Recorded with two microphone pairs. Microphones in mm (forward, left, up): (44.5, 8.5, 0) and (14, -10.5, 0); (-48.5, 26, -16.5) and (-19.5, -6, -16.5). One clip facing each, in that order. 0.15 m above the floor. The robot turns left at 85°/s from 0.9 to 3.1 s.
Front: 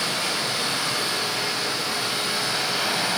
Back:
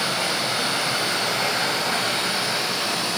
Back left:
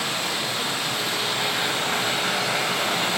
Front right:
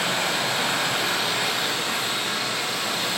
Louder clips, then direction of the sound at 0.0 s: Back 2 dB, front right 2 dB; 85° right.